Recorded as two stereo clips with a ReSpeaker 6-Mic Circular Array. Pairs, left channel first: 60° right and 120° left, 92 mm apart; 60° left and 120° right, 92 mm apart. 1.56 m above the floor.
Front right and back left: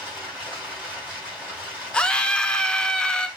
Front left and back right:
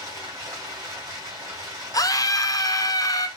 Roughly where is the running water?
Behind.